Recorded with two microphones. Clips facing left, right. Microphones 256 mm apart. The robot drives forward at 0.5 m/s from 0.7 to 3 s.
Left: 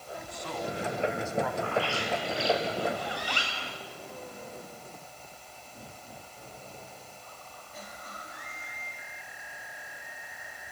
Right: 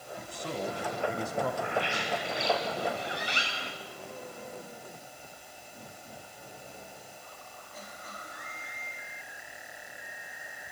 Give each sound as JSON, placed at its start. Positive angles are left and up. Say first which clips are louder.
{"t": 0.2, "sound": "a man speaking", "louder": "right 2 dB", "side_deg": -35, "distance_m": 3.0}
{"t": 1.6, "sound": "a bird", "louder": "left 2 dB", "side_deg": -20, "distance_m": 3.5}